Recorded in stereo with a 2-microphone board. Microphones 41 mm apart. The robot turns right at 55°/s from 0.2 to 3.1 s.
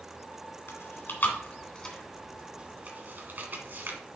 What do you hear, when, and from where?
0.7 s chewing: 80° left, 2 m; by 4.0 s 50° right (ahead or behind), 2 m